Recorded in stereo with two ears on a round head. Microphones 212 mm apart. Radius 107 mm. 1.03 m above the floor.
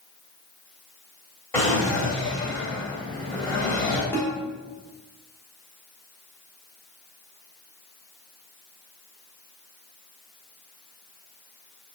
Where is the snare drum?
10° left (ahead or behind), 1.2 m.